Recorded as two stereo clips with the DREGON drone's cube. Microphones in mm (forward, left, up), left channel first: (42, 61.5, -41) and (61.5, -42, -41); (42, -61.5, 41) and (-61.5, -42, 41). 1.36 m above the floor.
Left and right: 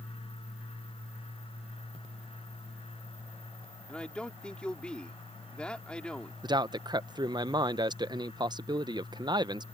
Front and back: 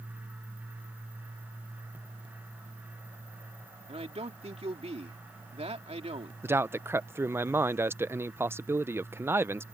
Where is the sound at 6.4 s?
125° right.